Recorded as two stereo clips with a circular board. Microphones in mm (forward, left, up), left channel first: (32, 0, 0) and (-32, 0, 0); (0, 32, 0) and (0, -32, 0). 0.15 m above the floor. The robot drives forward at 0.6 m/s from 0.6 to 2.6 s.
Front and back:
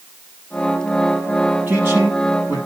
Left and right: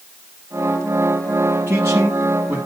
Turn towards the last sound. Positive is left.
turn(degrees=-140)